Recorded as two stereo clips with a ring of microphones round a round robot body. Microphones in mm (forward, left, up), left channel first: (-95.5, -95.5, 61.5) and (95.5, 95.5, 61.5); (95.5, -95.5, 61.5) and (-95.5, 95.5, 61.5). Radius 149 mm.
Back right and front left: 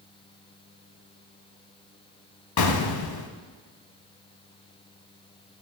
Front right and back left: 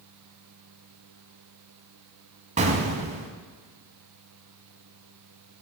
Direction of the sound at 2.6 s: 155° right.